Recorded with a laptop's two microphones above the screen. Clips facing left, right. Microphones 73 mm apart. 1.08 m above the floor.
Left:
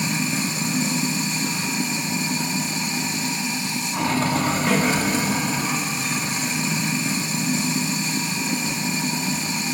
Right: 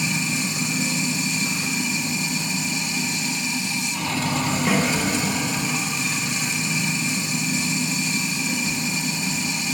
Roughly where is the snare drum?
Centre.